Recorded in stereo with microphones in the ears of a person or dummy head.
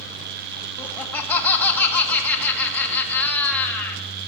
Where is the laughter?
10° left (ahead or behind), 1.3 m.